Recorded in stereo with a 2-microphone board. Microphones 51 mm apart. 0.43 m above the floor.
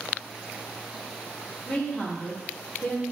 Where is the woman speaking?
30° left (ahead or behind), 0.8 m.